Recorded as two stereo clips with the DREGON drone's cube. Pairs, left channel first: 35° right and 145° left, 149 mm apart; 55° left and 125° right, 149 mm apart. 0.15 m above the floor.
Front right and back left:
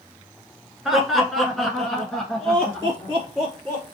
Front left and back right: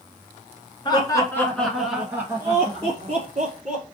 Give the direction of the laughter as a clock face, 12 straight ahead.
10 o'clock.